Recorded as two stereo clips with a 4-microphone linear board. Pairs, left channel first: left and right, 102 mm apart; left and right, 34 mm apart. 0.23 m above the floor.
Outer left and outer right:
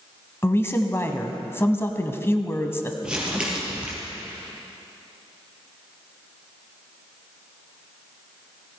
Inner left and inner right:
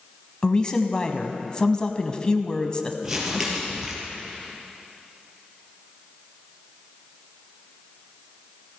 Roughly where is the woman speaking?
Left.